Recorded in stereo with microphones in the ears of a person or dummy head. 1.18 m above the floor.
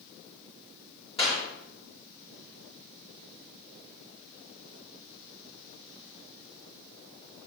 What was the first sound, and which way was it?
A clap, 30° left (ahead or behind).